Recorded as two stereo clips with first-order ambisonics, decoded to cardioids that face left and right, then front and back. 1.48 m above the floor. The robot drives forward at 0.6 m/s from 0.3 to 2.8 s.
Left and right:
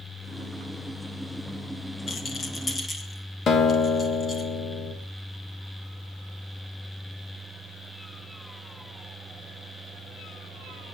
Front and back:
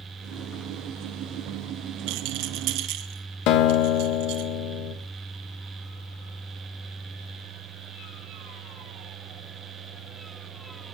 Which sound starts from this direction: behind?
A rattle, at 2.1 s.